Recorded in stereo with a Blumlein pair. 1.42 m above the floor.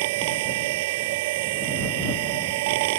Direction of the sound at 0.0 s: 50° right.